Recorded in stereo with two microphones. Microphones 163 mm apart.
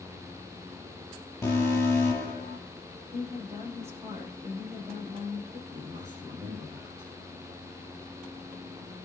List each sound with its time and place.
1.4 s an alarm: 15° left (ahead or behind), 8 m
3.1 s a woman speaking: 15° right (ahead or behind), 7.5 m
5.7 s a man speaking: 15° right (ahead or behind), 6.5 m